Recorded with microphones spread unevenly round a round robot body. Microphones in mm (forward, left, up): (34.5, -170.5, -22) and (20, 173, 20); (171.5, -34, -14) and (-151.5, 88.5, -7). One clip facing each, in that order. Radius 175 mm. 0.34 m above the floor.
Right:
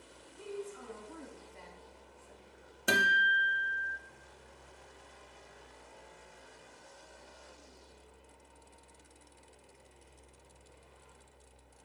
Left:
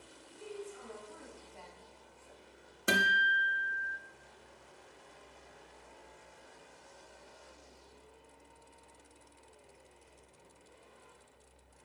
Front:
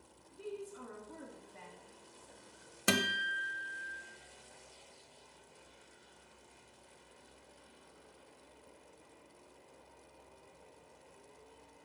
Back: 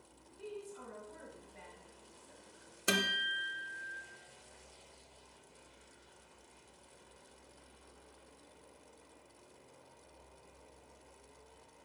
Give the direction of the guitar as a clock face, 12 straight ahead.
12 o'clock.